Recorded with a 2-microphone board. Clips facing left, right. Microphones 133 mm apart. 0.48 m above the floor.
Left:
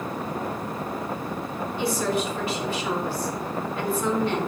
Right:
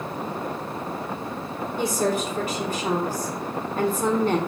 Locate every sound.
1.8 s a woman speaking: 45° right (ahead or behind), 1.6 m